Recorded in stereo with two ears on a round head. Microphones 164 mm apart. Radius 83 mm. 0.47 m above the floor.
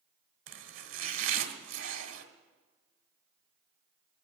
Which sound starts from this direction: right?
Chopping, at 0.5 s.